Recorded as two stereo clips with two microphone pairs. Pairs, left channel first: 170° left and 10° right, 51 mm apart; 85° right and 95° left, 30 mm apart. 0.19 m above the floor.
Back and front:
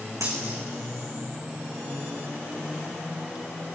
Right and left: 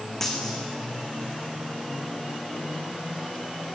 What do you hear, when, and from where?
0.2 s a dropped coin: 5° right, 3.5 m